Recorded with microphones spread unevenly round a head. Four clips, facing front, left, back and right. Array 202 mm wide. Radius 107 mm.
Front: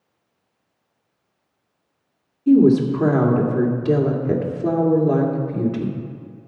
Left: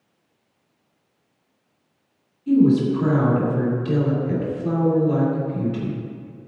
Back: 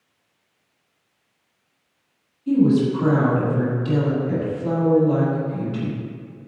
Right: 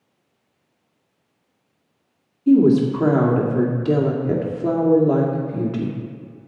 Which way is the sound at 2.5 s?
55° right.